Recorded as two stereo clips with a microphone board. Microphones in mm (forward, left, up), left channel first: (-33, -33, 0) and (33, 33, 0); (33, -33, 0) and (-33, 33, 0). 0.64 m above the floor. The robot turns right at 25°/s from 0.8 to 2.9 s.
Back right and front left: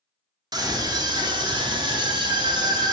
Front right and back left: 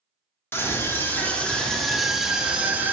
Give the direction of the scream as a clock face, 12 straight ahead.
11 o'clock.